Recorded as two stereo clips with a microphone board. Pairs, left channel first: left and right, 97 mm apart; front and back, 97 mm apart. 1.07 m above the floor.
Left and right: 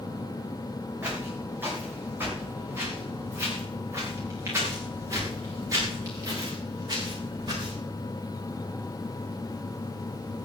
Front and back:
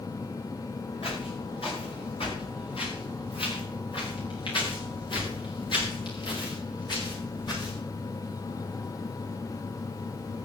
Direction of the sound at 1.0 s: 20° right.